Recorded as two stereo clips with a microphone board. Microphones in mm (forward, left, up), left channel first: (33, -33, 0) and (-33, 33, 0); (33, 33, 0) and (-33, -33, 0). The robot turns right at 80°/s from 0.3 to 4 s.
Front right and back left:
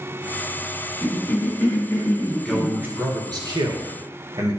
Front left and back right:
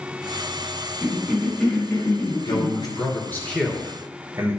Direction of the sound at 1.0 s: 85° right.